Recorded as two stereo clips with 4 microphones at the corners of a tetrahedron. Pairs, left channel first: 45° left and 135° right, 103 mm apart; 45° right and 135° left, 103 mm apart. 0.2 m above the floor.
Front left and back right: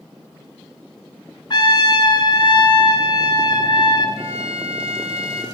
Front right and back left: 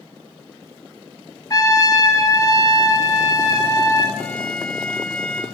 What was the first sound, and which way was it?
A trumpet, 5° left.